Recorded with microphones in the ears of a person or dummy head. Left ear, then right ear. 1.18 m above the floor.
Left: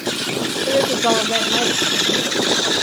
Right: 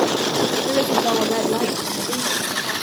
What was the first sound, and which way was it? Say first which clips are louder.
A woman speaking: left 6 dB; 30° left (ahead or behind).